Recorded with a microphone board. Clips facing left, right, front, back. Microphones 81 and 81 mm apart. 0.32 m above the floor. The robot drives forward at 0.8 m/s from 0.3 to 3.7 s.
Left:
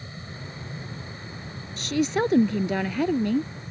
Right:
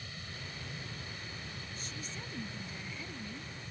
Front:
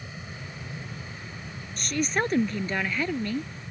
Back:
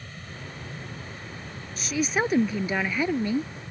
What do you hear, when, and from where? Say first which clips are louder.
0.0 s an aircraft: left 7 dB, front 1 dB; 70° left; by 3.7 s 80° left
1.8 s a woman speaking: left 28 dB, back 1 dB; 95° left; by 3.5 s 110° left